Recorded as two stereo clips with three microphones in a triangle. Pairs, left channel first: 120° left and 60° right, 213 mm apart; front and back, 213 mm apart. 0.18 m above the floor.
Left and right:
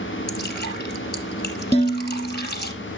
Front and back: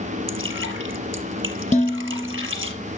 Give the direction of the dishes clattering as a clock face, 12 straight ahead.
10 o'clock.